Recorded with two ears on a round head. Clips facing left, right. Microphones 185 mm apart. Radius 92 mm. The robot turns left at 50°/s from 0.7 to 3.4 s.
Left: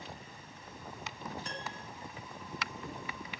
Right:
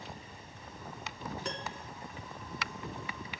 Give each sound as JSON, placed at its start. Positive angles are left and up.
{"t": 1.4, "sound": "a piano", "side_deg": -60, "distance_m": 3.5}